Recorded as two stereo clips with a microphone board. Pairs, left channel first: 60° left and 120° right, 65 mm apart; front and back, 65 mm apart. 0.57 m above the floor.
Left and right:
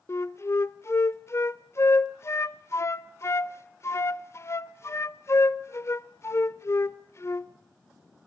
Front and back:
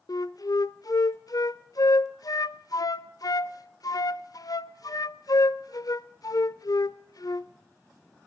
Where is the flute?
15° left, 0.7 m.